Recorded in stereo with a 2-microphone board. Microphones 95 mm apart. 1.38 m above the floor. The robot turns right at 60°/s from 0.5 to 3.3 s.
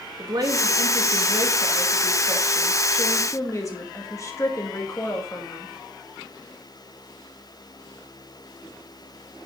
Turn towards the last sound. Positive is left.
turn(degrees=35)